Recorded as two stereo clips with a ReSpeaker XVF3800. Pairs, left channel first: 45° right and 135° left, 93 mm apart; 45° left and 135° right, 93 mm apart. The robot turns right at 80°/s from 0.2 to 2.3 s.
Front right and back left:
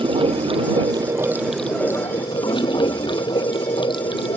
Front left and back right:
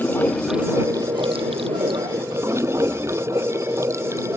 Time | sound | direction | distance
0.0 | running water | 115° left | ?